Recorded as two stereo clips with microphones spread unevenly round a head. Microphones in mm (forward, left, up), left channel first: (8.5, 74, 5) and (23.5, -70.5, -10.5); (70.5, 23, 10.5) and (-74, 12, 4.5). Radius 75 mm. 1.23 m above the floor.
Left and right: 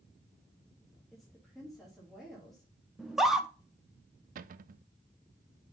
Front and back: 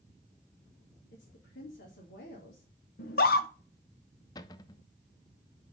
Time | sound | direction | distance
1.1 | a woman speaking | 5° left | 2 m
3.0 | a scream | straight ahead | 1.3 m
4.3 | a cupboard door | 60° right | 0.5 m